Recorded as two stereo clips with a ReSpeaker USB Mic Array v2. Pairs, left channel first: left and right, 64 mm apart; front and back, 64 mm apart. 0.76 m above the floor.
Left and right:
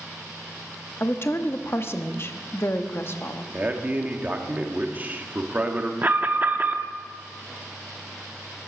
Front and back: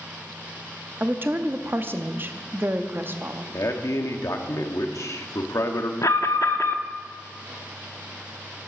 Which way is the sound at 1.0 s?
130° left.